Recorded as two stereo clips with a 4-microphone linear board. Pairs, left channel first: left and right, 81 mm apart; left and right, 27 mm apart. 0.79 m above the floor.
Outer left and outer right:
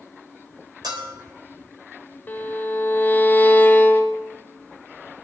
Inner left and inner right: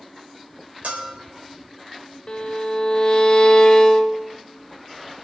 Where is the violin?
25° left (ahead or behind), 1.0 m.